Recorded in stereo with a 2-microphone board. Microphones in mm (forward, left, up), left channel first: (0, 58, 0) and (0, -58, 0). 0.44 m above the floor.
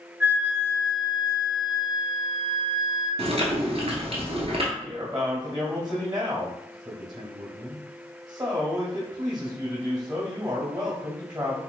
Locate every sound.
0.2 s a flute: 15° right (ahead or behind), 1.1 m
3.2 s chewing: 60° right (ahead or behind), 1.0 m
4.8 s a man speaking: 40° right (ahead or behind), 1.5 m